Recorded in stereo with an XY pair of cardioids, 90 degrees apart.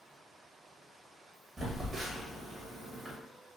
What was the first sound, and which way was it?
A phone buzzing, 45° right.